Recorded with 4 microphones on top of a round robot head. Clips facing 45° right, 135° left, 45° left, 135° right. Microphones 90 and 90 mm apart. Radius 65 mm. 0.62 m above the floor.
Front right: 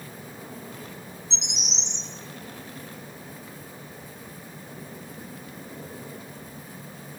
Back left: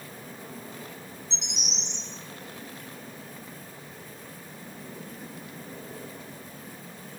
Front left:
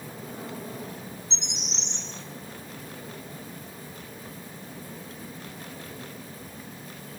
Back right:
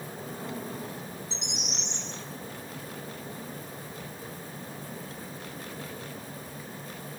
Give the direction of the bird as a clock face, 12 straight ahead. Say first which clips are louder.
Front right 2 dB, back right 1 dB; 1 o'clock.